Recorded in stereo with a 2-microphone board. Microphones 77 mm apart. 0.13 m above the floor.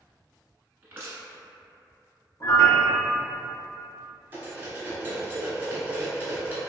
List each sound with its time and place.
0.8 s crushing: 25° right (ahead or behind), 1.1 m
2.4 s a piano: 40° left (ahead or behind), 0.9 m
4.3 s cutlery clinking: 25° right (ahead or behind), 1.0 m